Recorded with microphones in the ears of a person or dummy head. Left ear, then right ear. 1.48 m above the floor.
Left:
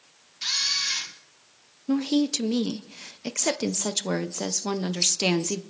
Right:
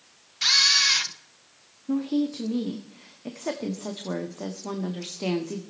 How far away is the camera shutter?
About 0.7 m.